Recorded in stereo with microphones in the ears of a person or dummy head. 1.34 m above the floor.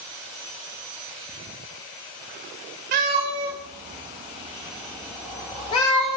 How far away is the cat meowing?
About 1.4 m.